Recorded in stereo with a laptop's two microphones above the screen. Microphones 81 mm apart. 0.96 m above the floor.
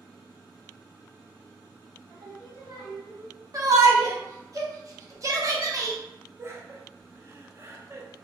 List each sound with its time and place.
2.1 s singing: 65° right (ahead or behind), 1.6 m
3.5 s a shout: 45° right (ahead or behind), 1.1 m
6.4 s laughter: 35° right (ahead or behind), 0.8 m